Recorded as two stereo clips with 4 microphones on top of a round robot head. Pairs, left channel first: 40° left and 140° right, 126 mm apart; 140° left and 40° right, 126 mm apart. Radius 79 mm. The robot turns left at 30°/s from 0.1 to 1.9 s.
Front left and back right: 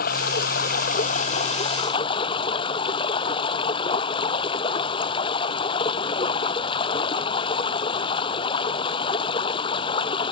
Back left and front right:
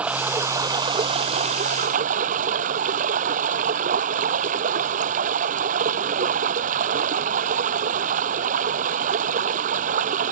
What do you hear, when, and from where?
0.0 s running water: 40° left; by 10.3 s 15° right